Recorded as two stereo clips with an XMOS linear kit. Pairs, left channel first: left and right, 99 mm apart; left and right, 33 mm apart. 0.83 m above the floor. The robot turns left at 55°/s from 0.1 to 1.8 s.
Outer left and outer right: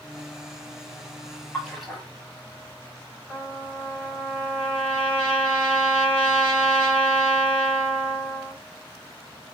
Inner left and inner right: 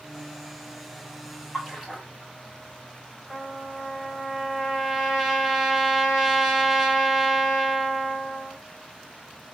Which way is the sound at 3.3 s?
10° left (ahead or behind).